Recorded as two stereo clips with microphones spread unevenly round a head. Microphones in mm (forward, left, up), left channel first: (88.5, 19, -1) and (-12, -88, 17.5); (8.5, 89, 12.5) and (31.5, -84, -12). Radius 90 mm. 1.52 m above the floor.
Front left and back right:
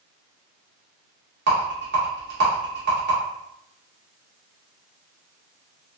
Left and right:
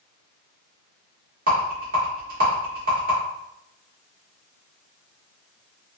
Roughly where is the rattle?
Behind right.